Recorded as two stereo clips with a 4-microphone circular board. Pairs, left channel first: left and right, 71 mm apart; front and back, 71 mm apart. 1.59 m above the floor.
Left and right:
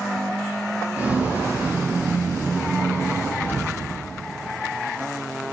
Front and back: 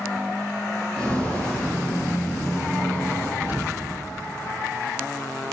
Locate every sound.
1.0 s footsteps: 60° right, 1.7 m; by 3.3 s 40° right, 3 m
3.4 s an explosion: 130° left, 2 m